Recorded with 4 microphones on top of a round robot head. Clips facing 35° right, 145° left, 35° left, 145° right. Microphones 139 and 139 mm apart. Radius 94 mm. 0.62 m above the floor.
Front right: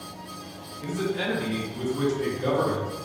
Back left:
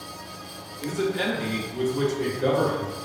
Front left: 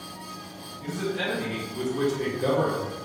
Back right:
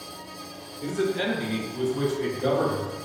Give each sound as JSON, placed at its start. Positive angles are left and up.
{"t": 0.8, "sound": "a man speaking", "azimuth_deg": -160, "distance_m": 1.3}